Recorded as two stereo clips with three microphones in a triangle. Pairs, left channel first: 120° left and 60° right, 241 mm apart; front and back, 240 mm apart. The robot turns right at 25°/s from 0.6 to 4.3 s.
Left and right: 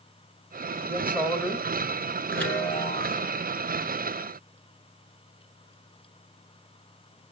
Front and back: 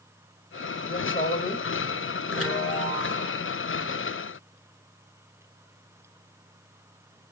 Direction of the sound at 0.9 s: 15° left.